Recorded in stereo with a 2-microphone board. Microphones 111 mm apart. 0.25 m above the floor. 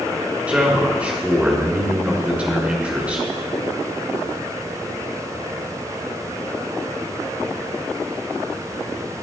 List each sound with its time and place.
0.5 s a man speaking: 10° right (ahead or behind), 3.5 m